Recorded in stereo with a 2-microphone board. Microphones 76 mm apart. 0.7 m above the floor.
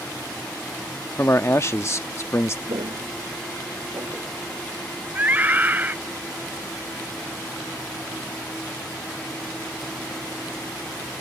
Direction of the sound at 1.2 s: 40° left (ahead or behind).